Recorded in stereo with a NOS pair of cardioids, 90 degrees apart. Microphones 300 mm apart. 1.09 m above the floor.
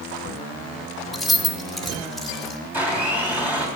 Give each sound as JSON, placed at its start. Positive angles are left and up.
{"t": 1.1, "sound": "keys jangling", "azimuth_deg": 0, "distance_m": 1.1}
{"t": 2.7, "sound": "a blender", "azimuth_deg": -5, "distance_m": 2.5}